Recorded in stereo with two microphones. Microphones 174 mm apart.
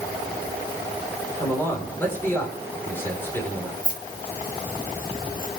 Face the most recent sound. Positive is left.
turn(degrees=50)  # may be behind; listen again after turning